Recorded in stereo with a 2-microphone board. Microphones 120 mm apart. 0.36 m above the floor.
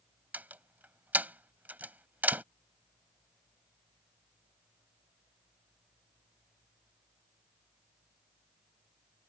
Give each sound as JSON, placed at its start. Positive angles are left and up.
{"t": 0.3, "sound": "a door slam", "side_deg": -15}